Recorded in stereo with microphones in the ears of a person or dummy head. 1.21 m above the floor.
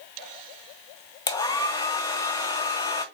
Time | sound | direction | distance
1.3 | a hair dryer | 20° left (ahead or behind) | 0.5 m